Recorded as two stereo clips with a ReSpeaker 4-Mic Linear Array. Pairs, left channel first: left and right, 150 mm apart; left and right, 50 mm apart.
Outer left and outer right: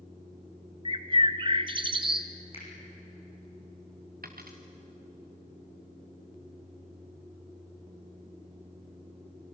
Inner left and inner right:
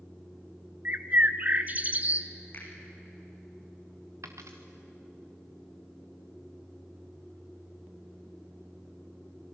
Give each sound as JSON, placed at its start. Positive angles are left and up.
{"t": 0.8, "sound": "a bird", "side_deg": -35, "distance_m": 1.0}
{"t": 2.5, "sound": "a finger snap", "side_deg": 40, "distance_m": 7.0}
{"t": 4.2, "sound": "a dropped coin", "side_deg": -85, "distance_m": 2.5}